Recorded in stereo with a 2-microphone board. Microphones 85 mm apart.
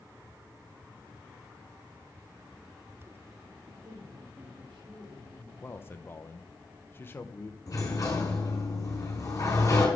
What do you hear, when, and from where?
3.8 s a woman speaking: 65° right (ahead or behind), 2.5 m; by 5.5 s 80° right, 3 m
5.6 s a man speaking: 25° left (ahead or behind), 0.8 m
7.7 s a sliding door: 40° left (ahead or behind), 4.5 m